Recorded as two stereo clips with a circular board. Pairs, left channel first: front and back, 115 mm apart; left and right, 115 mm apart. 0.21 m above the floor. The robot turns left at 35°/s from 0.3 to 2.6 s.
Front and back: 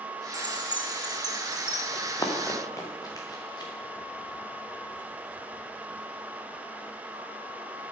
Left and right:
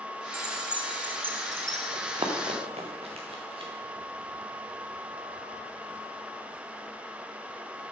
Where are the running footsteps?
55° right, 2 m; by 3.7 s 50° right, 2.5 m.